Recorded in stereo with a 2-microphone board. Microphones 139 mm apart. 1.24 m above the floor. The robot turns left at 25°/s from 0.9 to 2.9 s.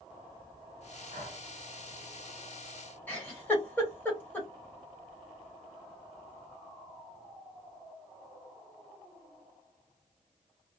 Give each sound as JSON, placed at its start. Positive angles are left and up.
{"t": 1.1, "sound": "breathing", "side_deg": -75, "distance_m": 1.2}
{"t": 3.1, "sound": "a giggle", "side_deg": 15, "distance_m": 1.3}